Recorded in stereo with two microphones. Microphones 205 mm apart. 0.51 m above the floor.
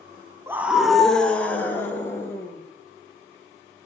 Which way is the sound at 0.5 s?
10° right (ahead or behind).